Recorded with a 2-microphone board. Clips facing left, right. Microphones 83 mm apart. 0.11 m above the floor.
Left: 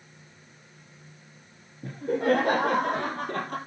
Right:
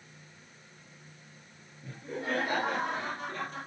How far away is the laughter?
About 4 m.